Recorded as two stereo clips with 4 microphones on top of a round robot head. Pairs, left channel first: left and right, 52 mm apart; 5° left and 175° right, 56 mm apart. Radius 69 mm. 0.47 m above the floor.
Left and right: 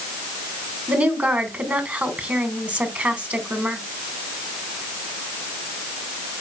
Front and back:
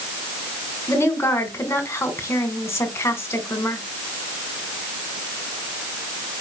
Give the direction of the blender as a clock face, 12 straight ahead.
I don't hear a blender.